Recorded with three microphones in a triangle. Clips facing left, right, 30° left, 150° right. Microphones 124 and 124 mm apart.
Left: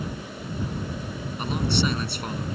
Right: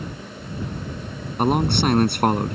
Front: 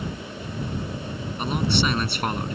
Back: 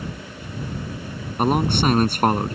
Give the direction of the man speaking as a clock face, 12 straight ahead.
4 o'clock.